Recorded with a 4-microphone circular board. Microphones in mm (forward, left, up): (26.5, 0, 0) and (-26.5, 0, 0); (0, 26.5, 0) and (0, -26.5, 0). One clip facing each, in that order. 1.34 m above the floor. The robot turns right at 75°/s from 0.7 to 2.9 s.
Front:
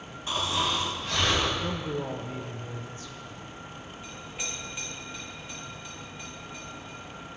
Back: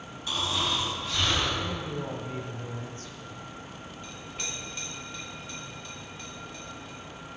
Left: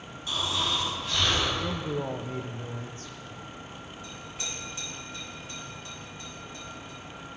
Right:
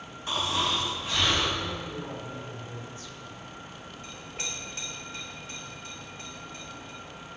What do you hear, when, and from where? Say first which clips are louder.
0.3 s snoring: front 1 dB, right 2 dB; 50° right, 2 m; by 1.5 s 10° left, 2 m
1.6 s a man speaking: front 2 dB, left 4 dB; 40° left, 0.7 m; by 3.2 s 135° left, 0.7 m
4.0 s a clink: front 1 dB, right 2 dB; 80° right, 3 m